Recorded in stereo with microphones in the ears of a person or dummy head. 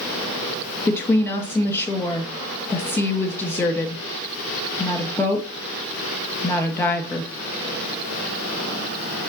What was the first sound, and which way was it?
A woman speaking, 5° left (ahead or behind).